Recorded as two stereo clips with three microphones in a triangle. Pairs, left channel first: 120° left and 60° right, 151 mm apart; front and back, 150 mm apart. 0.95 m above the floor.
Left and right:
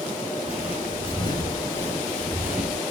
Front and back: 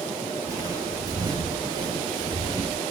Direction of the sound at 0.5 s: 120° left.